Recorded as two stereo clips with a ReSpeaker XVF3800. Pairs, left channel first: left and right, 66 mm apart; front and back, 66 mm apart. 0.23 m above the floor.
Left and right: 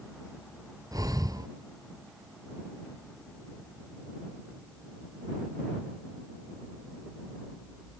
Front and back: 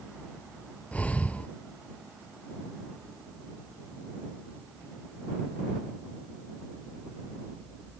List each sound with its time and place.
0.9 s breathing: 70° right